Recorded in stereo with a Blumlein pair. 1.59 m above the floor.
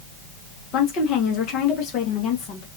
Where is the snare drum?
No snare drum in this recording.